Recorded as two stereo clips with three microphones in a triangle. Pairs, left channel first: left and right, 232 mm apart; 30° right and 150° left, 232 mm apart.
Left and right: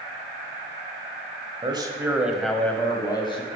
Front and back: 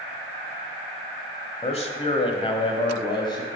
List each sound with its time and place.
1.6 s a man speaking: 50° right, 1.0 m; by 3.6 s 35° left, 1.4 m